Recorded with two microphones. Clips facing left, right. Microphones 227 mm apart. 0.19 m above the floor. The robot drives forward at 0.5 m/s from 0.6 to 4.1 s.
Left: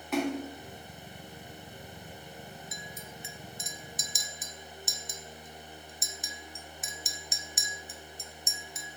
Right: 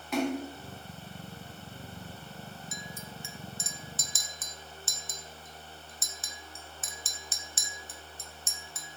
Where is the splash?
Centre (ahead or behind), 1.5 m.